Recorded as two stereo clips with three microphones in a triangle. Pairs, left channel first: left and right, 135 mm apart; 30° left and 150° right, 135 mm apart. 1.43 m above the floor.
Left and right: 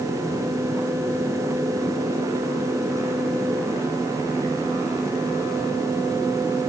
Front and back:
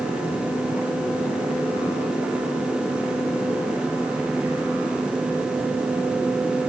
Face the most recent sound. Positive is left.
No sound to turn to.